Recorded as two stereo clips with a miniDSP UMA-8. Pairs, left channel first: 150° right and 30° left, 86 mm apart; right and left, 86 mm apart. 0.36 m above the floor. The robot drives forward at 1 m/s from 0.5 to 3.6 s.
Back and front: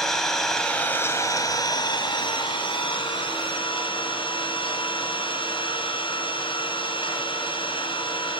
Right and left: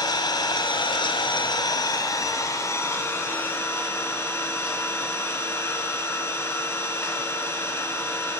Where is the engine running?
65° right, 1.4 m; by 8.4 s 155° right, 3 m.